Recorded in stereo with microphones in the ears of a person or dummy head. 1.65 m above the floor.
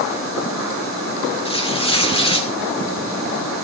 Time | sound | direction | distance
1.4 | tearing paper | 30° left (ahead or behind) | 1.6 m